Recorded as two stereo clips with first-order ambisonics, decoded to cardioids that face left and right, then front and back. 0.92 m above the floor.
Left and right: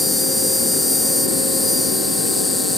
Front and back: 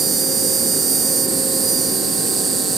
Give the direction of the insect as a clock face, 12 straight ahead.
6 o'clock.